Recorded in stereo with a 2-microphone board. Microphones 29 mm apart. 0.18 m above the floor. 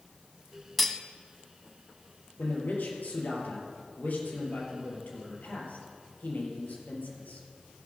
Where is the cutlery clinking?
5° left (ahead or behind), 0.6 m.